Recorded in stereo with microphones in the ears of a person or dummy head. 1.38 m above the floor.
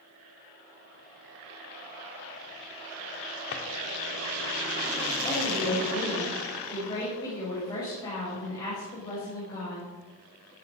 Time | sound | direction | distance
3.5 | a drawer | 40° left (ahead or behind) | 1.2 m
5.2 | a woman speaking | 20° left (ahead or behind) | 5.5 m